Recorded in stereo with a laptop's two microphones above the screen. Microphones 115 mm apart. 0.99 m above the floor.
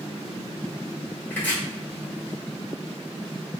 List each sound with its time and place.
1.3 s chopping: 15° left (ahead or behind), 2.0 m